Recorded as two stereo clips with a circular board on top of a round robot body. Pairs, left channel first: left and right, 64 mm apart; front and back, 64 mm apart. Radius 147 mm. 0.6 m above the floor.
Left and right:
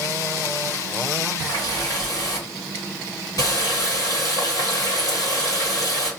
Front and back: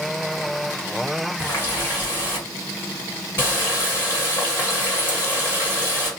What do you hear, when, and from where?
1.4 s a running tap: 55° left, 1.7 m